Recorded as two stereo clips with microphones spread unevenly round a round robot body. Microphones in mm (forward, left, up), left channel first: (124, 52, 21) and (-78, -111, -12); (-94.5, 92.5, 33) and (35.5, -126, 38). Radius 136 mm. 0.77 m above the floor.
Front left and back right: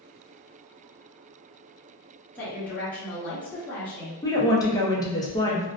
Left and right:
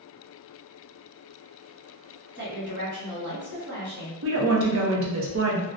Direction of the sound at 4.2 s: 40° right.